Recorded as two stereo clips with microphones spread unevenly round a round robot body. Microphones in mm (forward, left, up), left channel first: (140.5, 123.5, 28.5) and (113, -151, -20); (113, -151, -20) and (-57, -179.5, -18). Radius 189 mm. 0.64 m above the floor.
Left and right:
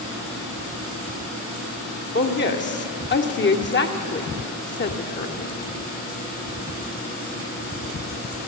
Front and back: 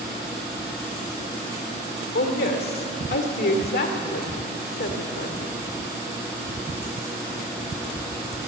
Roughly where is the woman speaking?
Ahead left.